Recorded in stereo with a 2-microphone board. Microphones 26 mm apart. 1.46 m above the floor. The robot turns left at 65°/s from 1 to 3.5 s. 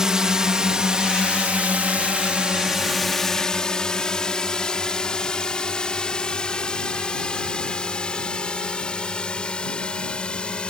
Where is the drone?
30° right (ahead or behind); by 10.7 s 45° left (ahead or behind).